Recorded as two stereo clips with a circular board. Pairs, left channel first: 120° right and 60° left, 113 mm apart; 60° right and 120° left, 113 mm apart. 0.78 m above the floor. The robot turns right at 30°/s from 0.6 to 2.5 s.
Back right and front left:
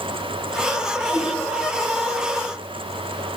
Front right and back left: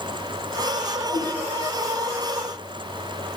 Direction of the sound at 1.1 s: 155° left.